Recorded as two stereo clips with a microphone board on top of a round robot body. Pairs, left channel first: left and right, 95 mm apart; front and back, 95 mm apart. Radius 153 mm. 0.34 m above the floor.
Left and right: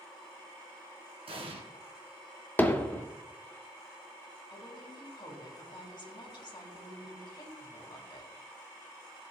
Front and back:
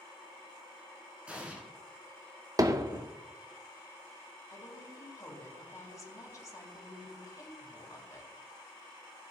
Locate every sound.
1.3 s an explosion: 100° right, 2.5 m
2.6 s hammering: 150° left, 1.3 m
4.5 s a woman speaking: 55° left, 3.5 m